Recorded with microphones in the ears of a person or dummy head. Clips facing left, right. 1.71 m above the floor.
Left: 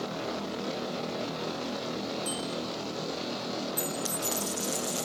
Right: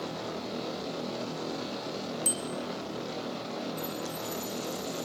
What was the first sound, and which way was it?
A bicycle bell, 65° right (ahead or behind).